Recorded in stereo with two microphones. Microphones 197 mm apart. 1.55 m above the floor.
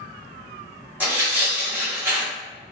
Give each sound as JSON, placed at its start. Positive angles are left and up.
{"t": 1.0, "sound": "tearing paper", "side_deg": -10, "distance_m": 1.2}